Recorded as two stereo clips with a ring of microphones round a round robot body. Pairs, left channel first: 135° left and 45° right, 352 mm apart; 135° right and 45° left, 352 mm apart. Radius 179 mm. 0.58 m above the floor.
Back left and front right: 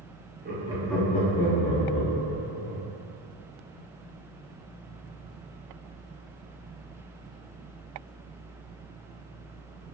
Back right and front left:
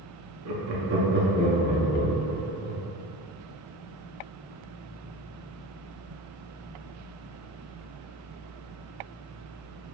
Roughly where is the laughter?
Ahead.